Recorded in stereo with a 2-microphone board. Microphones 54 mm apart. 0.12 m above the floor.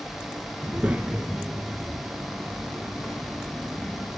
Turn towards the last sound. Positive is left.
turn(degrees=-5)  # may be behind; listen again after turning